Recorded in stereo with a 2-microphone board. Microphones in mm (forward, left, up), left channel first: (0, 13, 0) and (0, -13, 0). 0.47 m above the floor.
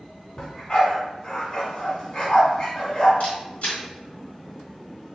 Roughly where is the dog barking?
Left.